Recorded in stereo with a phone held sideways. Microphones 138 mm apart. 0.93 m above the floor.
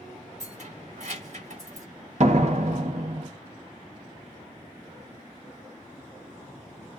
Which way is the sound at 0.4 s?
60° right (ahead or behind).